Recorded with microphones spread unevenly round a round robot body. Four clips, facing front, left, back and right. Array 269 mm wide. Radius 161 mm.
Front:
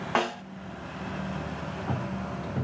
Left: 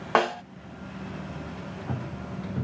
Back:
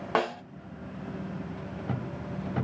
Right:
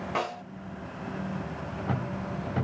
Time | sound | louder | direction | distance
0.1 | a snare drum | left 9 dB, even | 85° left | 0.5 m